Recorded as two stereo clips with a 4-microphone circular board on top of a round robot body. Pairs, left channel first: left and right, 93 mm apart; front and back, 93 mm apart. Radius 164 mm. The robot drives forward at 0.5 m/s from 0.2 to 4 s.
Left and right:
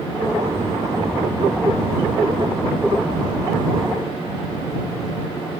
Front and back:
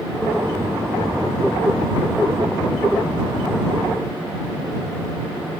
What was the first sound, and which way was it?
Only background noise.